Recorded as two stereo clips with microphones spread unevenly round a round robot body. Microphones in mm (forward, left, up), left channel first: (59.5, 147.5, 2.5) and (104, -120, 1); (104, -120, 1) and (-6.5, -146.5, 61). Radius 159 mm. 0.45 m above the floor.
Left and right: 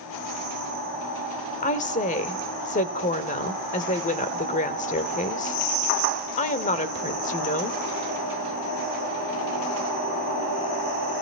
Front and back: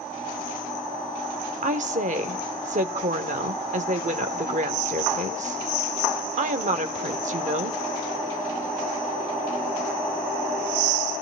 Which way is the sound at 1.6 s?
155° left.